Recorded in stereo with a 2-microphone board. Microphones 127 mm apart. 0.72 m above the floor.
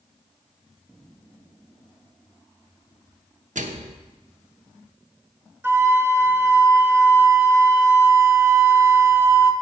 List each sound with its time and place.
3.5 s a microwave: 80° right, 0.9 m
5.6 s a flute: 20° right (ahead or behind), 0.7 m